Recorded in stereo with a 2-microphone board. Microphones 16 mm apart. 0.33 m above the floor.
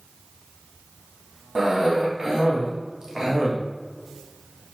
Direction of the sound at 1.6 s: 35° right (ahead or behind).